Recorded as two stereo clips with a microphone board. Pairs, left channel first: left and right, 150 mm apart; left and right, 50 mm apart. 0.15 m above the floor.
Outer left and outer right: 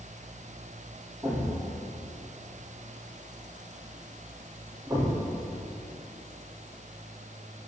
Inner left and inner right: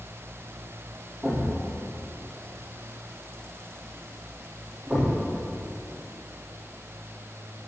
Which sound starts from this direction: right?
A thud, at 1.2 s.